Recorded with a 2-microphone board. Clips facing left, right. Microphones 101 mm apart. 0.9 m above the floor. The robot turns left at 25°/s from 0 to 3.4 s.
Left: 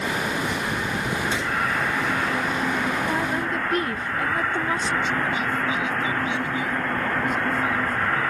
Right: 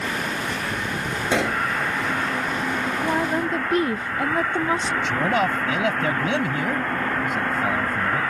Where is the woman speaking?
20° right (ahead or behind); by 4.9 s 25° right (ahead or behind).